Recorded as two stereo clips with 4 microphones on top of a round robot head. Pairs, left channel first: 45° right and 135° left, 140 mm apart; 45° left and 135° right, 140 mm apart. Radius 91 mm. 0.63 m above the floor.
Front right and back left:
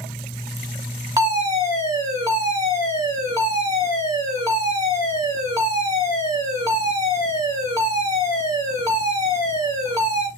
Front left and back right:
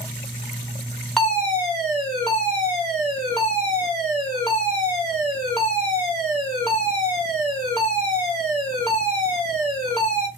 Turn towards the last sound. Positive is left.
turn(degrees=125)